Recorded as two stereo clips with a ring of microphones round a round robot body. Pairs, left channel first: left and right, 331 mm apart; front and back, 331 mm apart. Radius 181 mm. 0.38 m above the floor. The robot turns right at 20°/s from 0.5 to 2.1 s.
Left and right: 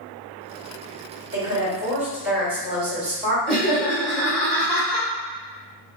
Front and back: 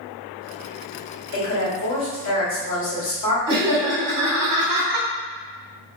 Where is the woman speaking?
20° right, 1.8 m; by 3.4 s 5° right, 1.8 m.